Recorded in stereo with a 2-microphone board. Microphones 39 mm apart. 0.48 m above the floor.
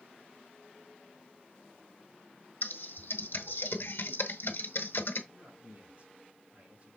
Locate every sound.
2.6 s typing on a keyboard: 70° left (ahead or behind), 1.3 m
5.3 s a man speaking: 35° right (ahead or behind), 3 m